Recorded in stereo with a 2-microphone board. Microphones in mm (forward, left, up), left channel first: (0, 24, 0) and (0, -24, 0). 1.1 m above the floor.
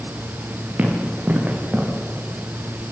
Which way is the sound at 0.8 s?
35° right (ahead or behind).